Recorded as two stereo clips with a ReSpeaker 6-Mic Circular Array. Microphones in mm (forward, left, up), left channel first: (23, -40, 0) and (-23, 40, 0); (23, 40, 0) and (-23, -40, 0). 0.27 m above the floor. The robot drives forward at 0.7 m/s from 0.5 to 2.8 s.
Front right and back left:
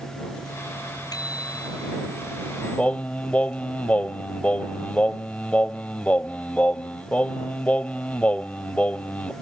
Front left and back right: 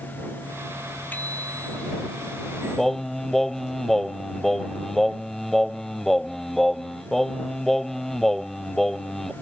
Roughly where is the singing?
Ahead.